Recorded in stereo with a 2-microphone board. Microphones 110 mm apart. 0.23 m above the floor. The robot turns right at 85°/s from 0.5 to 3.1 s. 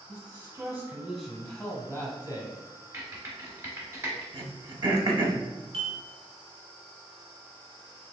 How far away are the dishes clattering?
About 1.7 m.